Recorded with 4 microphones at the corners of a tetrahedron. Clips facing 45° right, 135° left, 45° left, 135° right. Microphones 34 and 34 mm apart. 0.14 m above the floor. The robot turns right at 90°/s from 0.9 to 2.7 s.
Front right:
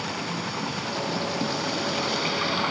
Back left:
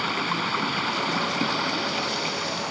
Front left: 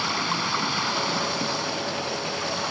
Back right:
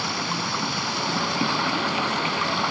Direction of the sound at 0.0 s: 120° left.